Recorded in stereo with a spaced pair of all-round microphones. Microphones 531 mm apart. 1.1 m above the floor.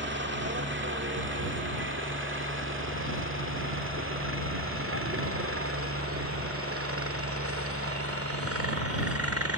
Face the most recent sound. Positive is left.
turn(degrees=-25)  # may be behind; listen again after turning